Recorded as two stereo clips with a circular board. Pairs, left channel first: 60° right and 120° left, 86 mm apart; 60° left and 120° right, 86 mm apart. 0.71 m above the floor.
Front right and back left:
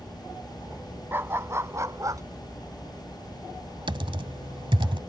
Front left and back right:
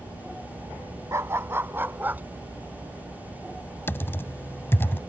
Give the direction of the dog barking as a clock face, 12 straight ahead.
6 o'clock.